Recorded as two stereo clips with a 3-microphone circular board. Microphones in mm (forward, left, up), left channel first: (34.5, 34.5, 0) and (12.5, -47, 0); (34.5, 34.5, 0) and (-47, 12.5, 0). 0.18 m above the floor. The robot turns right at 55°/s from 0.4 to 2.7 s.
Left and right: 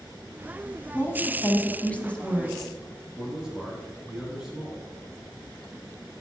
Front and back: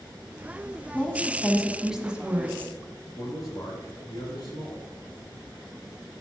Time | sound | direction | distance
0.9 | a woman speaking | 70° left | 1.1 m
3.2 | a man speaking | 25° right | 3 m